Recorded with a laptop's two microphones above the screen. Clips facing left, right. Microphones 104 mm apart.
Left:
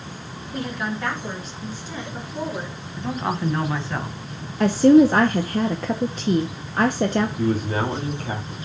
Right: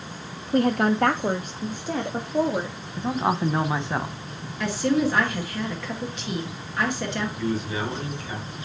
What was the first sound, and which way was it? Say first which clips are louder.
A woman speaking: right 8 dB; 55° right (ahead or behind).